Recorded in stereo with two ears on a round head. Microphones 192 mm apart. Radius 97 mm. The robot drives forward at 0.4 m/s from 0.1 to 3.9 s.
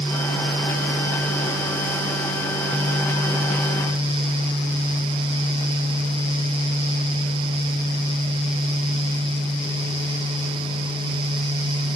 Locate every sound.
Only background noise.